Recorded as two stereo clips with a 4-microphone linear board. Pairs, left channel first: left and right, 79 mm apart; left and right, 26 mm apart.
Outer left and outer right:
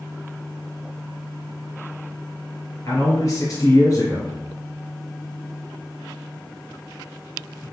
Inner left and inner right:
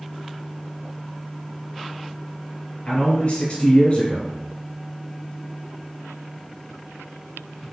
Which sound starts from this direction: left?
A man speaking, at 2.9 s.